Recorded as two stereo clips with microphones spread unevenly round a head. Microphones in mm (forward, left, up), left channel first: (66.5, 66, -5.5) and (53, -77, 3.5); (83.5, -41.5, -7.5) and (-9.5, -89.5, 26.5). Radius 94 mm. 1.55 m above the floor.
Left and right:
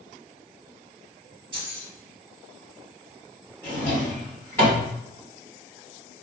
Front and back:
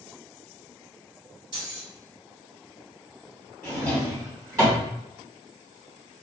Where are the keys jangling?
125° right, 2.5 m.